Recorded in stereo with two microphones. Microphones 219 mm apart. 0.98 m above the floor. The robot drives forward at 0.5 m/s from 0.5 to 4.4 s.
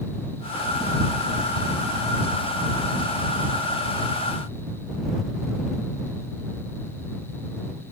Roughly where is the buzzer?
I don't hear a buzzer.